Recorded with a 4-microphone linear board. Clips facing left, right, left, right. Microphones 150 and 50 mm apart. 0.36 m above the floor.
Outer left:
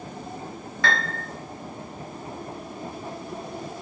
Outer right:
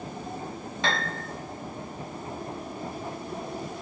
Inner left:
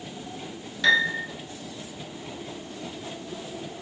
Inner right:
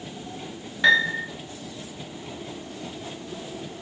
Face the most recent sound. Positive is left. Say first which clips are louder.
# outer left 2 dB, inner right 2 dB
turn(degrees=-25)  # may be behind; listen again after turning